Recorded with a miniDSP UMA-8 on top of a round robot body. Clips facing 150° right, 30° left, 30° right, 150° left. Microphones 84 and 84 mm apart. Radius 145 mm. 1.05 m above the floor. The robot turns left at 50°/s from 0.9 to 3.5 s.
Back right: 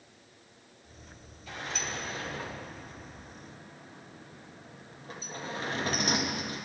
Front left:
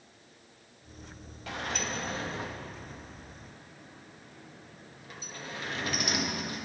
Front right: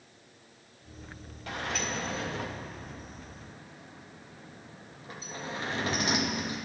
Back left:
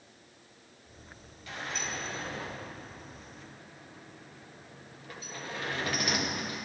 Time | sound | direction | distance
1.5 | a sliding door | 5° left | 1.6 m